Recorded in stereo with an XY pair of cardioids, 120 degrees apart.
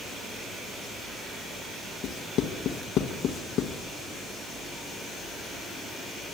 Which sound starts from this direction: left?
Writing, at 2.0 s.